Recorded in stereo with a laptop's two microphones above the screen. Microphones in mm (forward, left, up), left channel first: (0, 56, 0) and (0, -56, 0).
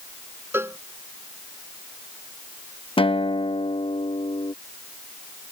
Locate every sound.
0.5 s a cowbell: 20° right (ahead or behind)
3.0 s a guitar: 55° left (ahead or behind)